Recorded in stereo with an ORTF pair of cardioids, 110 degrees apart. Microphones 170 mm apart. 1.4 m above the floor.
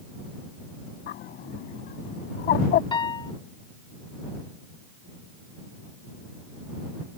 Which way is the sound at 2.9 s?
25° left.